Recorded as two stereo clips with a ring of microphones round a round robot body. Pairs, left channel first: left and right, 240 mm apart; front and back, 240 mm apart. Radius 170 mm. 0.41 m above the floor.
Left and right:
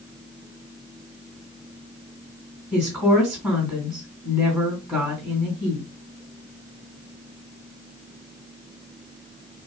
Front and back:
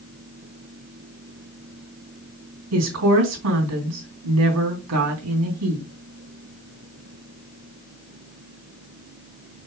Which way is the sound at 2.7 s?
Straight behind.